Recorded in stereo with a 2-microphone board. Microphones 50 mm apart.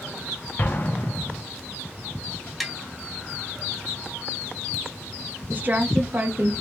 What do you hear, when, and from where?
0.6 s an explosion: 40° left (ahead or behind), 0.9 m
2.6 s tapping: 5° right (ahead or behind), 1.2 m
5.5 s a woman speaking: 35° right (ahead or behind), 1.2 m